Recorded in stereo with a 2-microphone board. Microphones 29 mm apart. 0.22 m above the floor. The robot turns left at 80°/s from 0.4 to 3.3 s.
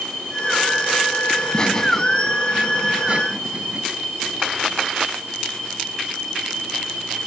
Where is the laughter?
55° left, 1.3 m; by 3.8 s 100° right, 1.3 m.